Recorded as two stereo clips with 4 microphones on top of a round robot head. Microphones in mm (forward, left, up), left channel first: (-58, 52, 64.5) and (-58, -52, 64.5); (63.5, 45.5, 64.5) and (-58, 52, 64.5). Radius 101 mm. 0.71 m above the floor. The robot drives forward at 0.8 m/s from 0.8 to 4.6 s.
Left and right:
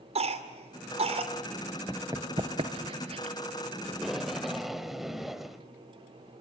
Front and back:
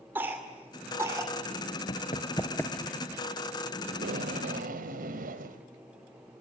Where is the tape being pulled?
175° right, 0.9 m; by 5.6 s straight behind, 1.5 m.